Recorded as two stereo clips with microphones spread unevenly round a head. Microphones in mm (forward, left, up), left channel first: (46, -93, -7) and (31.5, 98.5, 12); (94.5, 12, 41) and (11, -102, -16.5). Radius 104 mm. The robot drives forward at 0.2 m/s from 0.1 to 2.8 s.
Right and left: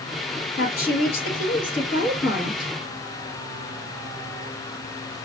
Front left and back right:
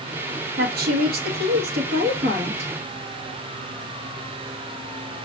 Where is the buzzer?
No buzzer in this recording.